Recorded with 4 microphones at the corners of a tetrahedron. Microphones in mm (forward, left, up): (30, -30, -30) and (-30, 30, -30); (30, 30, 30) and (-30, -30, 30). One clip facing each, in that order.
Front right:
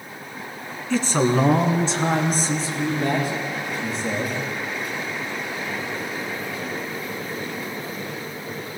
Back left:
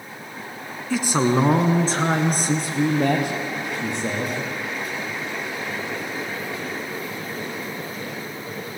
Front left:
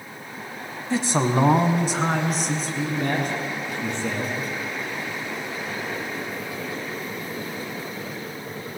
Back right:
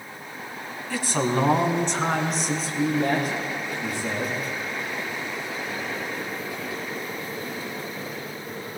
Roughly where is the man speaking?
Ahead left.